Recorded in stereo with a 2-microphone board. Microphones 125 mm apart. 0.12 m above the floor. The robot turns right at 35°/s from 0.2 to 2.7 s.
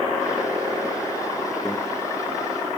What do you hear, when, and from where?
1.6 s a microwave: 5° left (ahead or behind), 1.6 m